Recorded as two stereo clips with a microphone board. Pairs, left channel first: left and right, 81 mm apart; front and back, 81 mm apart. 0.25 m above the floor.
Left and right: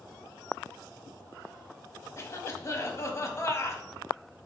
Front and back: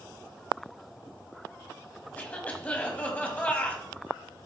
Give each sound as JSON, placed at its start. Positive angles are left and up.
{"t": 2.2, "sound": "a cough", "azimuth_deg": 65, "distance_m": 1.3}